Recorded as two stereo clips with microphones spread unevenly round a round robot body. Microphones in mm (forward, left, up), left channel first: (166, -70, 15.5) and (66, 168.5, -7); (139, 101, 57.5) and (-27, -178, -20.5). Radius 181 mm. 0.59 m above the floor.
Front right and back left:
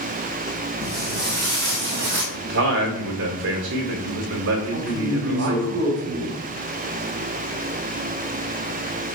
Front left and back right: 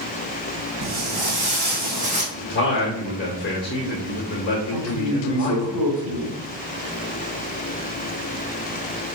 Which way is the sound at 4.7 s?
155° left.